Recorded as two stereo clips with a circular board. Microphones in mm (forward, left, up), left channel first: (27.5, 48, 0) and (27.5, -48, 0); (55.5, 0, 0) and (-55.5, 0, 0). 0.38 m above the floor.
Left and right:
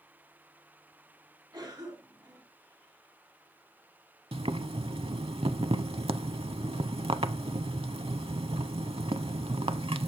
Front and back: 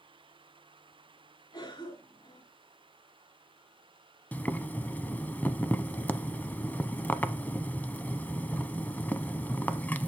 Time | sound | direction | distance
1.5 | a cough | 40° right | 4 m
4.3 | boiling | 75° right | 0.6 m